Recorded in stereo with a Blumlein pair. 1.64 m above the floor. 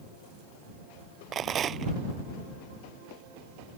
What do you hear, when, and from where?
1.3 s a rattle: 25° right